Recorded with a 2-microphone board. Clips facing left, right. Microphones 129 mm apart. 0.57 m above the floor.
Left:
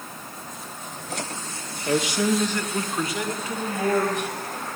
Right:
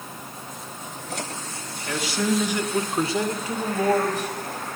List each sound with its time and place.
1.9 s a man speaking: 30° left (ahead or behind), 0.9 m; by 4.3 s 40° right (ahead or behind), 3 m